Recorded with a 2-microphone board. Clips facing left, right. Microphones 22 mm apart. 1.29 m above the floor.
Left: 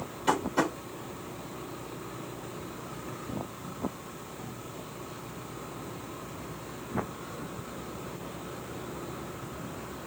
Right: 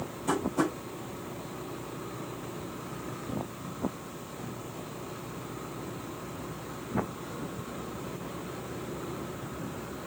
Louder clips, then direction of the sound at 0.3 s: Left 2 dB; 70° left (ahead or behind).